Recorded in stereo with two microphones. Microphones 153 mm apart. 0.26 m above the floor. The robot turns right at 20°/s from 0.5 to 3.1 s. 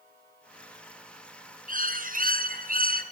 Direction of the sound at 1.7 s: 60° right (ahead or behind).